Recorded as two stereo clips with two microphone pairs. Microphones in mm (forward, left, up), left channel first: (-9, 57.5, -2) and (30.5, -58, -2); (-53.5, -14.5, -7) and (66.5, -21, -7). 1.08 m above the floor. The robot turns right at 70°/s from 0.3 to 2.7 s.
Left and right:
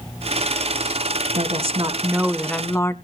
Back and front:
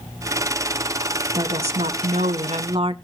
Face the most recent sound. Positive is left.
turn(degrees=40)